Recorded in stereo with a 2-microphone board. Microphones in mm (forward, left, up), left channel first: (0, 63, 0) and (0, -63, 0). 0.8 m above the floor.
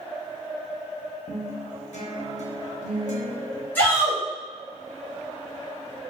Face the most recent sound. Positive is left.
turn(degrees=15)  # may be behind; listen again after turning